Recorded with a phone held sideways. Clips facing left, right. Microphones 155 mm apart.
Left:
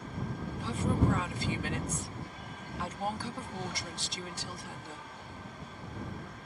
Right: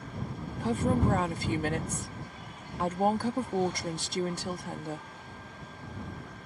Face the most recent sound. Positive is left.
turn(degrees=-55)  # may be behind; listen again after turning